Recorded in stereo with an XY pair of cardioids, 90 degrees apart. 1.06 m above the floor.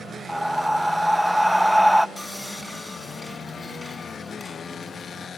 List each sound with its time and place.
0.3 s breathing: 10° right, 0.5 m
2.2 s sawing: 15° left, 5 m